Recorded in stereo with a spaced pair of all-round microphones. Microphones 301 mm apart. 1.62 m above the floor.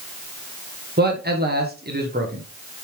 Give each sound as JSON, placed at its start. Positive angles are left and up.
{"t": 1.0, "sound": "a man speaking", "side_deg": -30, "distance_m": 1.5}